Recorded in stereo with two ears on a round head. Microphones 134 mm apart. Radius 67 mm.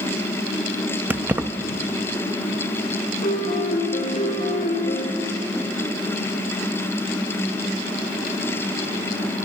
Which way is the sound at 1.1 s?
10° right (ahead or behind).